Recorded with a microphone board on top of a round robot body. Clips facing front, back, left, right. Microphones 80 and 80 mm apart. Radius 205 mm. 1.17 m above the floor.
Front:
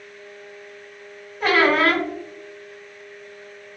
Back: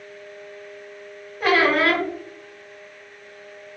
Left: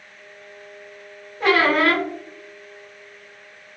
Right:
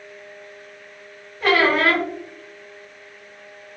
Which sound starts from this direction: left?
A squeak, at 1.4 s.